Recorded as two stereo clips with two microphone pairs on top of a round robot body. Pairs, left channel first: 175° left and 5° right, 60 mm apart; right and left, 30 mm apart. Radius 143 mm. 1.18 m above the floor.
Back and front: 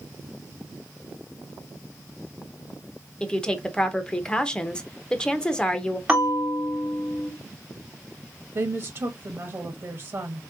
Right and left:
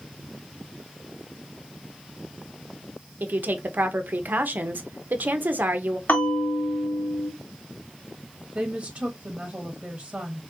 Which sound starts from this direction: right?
A bell, at 6.1 s.